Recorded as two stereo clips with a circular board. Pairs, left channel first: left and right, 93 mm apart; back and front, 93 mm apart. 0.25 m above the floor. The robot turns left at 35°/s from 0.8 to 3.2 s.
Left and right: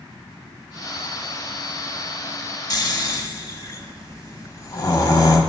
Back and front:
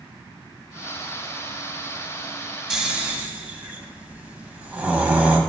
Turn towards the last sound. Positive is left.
turn(degrees=65)